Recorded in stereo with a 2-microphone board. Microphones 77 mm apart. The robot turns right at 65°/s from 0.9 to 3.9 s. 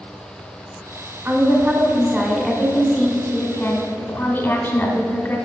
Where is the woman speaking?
25° right (ahead or behind), 1.4 m; by 5.4 s 25° left (ahead or behind), 1.4 m.